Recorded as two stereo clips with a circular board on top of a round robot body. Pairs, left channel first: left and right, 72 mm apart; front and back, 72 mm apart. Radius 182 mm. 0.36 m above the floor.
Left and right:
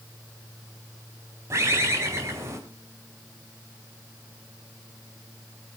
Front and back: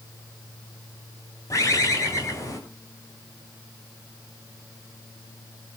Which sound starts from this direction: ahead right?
A bird, at 1.5 s.